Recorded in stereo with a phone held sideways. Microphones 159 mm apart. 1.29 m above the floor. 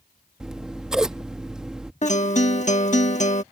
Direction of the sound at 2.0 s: 50° left (ahead or behind).